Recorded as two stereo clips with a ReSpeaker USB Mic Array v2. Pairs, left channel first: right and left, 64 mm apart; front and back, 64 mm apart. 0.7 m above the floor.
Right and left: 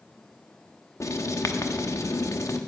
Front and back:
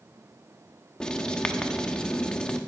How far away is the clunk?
No clunk in this recording.